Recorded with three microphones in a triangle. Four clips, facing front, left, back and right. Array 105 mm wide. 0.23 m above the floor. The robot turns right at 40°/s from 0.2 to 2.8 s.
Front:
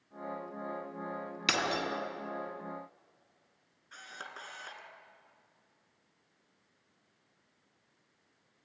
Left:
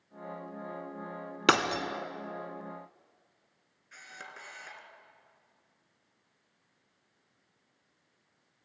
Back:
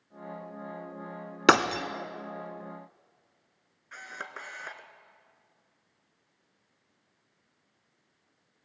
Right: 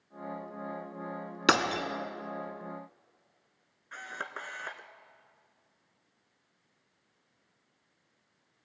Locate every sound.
1.5 s breaking glass: 175° left, 1.0 m; by 1.8 s 170° right, 1.0 m
3.9 s a camera shutter: 115° right, 1.2 m